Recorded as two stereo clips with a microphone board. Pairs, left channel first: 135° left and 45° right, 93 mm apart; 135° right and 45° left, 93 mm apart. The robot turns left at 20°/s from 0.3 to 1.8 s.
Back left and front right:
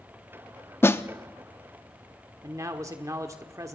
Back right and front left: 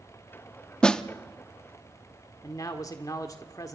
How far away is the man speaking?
About 1.3 m.